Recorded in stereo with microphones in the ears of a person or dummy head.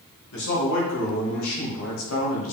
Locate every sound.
0.3 s a man speaking: 60° left (ahead or behind), 3 m; by 2.5 s 90° left, 3.5 m